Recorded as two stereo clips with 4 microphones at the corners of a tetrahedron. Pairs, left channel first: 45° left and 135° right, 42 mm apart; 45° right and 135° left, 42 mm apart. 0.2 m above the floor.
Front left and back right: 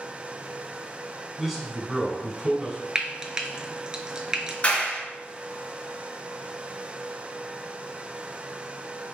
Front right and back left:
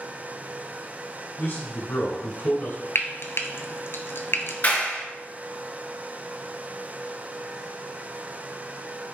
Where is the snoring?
No snoring in this recording.